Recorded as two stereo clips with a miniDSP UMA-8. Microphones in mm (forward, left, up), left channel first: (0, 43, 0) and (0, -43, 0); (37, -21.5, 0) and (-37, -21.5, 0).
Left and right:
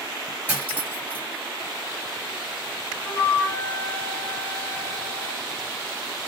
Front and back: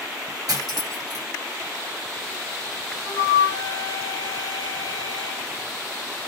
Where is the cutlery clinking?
160° right, 1.5 m.